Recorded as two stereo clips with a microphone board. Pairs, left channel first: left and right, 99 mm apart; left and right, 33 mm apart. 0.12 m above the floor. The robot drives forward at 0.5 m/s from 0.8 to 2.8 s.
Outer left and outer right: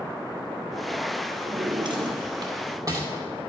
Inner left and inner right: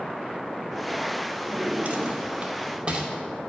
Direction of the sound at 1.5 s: 60° right (ahead or behind).